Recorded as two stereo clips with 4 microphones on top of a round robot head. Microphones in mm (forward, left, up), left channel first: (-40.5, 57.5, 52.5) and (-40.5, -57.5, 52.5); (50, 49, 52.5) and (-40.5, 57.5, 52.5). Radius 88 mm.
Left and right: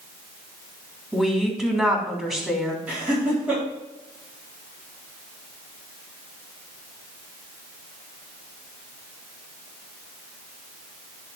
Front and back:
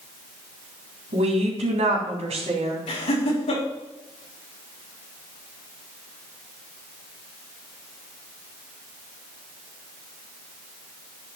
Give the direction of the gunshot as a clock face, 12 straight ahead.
No gunshot in this recording.